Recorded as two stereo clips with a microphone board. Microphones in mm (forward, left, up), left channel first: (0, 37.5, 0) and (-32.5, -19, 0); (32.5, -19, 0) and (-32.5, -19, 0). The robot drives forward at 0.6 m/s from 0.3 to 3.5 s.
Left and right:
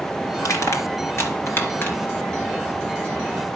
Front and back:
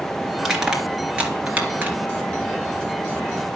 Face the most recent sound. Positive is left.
turn(degrees=135)